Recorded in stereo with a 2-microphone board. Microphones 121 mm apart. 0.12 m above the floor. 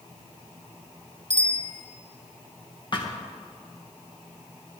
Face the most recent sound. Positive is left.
turn(degrees=40)  # may be behind; listen again after turning